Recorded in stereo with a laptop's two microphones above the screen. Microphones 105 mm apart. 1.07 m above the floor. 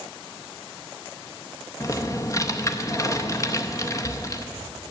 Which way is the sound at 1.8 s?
30° left (ahead or behind).